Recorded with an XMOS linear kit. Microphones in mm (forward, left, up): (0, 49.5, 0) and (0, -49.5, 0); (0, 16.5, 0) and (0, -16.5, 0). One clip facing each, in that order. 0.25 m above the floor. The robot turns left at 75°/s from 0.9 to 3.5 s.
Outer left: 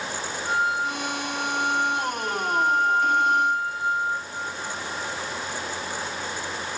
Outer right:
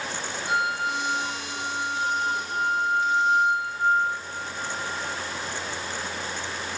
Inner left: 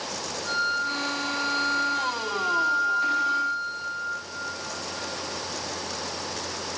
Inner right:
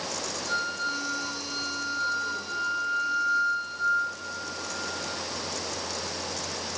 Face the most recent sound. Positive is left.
turn(degrees=-160)